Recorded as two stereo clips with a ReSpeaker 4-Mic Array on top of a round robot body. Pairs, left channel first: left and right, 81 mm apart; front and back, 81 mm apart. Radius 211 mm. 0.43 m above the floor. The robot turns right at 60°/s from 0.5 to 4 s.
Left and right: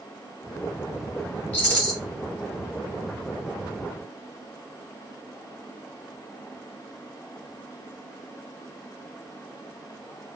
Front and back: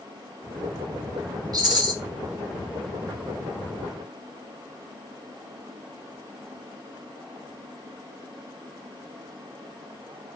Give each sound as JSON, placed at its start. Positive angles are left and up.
{"t": 1.5, "sound": "a rattle", "azimuth_deg": 155, "distance_m": 1.5}